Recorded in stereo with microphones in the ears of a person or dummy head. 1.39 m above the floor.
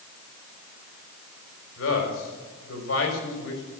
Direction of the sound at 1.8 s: 85° left.